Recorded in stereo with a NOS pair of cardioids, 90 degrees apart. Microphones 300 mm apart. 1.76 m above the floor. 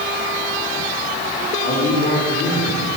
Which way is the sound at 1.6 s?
40° left.